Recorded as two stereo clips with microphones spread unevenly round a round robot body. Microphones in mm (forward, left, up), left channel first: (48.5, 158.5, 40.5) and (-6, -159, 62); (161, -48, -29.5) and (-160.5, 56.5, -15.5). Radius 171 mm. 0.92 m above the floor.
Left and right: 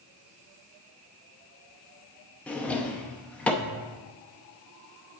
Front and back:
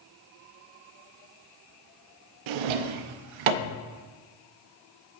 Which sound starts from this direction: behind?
A drawer, at 2.5 s.